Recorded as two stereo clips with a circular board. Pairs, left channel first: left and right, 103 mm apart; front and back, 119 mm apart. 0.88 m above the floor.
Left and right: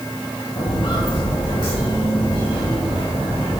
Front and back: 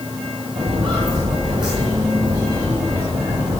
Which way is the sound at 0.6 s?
135° left.